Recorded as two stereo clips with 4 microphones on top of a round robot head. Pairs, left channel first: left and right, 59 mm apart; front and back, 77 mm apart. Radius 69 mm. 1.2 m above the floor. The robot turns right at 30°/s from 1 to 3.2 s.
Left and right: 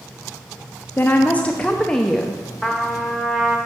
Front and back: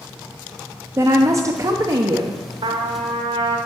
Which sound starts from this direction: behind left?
A woman speaking, at 1.0 s.